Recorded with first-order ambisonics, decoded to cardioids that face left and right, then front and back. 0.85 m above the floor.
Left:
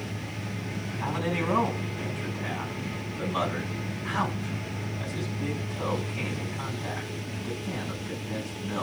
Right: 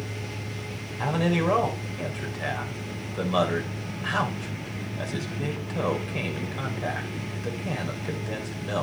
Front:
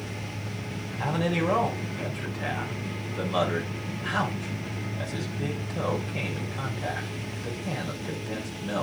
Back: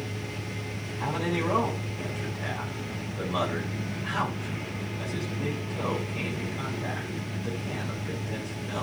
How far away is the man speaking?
About 4.5 m.